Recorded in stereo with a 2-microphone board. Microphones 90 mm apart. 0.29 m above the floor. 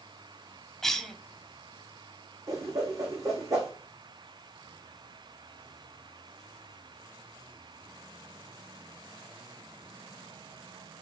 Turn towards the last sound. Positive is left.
turn(degrees=-40)  # may be behind; listen again after turning